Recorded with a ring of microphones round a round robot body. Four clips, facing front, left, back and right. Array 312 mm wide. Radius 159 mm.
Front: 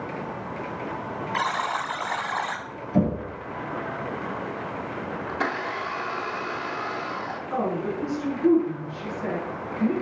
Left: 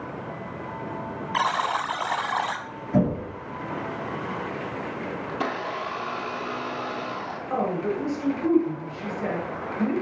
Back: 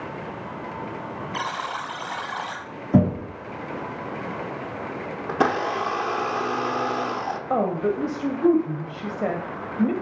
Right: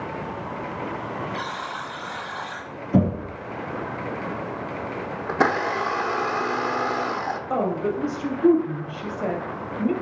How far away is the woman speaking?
About 2.5 m.